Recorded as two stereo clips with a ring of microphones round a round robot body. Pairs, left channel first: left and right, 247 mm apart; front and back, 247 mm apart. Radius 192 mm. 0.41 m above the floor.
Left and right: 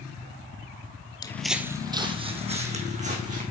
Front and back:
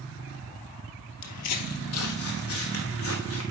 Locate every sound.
1.2 s footsteps: 15° left, 0.7 m; by 3.4 s 30° right, 3 m